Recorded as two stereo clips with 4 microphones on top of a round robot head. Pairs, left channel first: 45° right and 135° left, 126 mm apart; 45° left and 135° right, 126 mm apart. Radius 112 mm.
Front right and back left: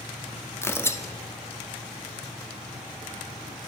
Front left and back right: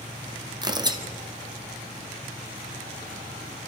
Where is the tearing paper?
105° right, 1.6 m.